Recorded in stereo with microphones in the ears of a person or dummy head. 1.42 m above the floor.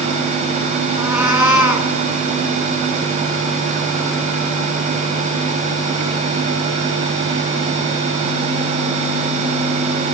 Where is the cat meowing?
15° right (ahead or behind), 1.9 m.